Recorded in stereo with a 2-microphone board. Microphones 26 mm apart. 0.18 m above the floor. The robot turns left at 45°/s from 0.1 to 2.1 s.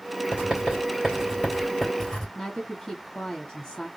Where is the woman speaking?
30° left (ahead or behind), 1.3 m.